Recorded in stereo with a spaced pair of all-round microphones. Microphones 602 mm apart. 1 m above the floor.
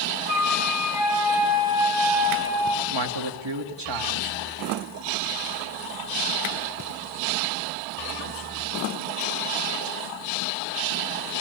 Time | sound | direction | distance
0.3 | a flute | 5° right (ahead or behind) | 5.5 m
2.9 | a man speaking | 45° right (ahead or behind) | 2.5 m